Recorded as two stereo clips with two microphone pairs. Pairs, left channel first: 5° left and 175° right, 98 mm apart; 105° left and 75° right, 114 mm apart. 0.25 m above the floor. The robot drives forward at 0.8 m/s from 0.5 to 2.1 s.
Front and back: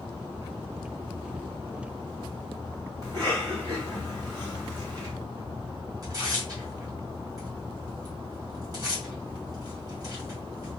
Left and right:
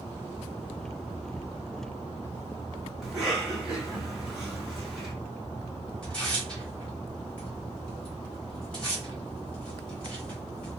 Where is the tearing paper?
Straight behind, 1.5 m.